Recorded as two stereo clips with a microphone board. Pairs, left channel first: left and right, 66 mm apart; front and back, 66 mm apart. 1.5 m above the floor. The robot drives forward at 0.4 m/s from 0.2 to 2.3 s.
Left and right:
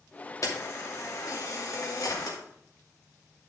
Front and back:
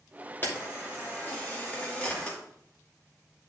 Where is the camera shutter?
60° left, 2.5 m; by 2.4 s 75° left, 2.5 m.